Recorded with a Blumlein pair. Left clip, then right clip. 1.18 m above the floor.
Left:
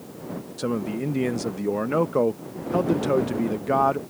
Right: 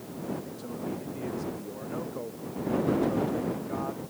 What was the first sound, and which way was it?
A man speaking, 55° left.